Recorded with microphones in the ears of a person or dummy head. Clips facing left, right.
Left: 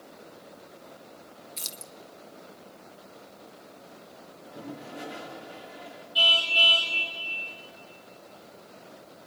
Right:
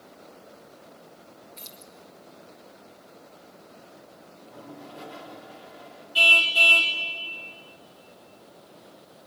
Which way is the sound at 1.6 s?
65° left (ahead or behind).